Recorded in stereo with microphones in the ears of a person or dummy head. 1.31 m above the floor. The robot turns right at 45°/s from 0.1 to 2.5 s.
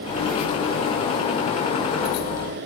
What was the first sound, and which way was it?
Only background noise.